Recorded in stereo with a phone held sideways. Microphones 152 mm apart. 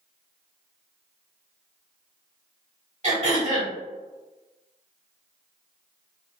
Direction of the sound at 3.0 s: 45° right (ahead or behind).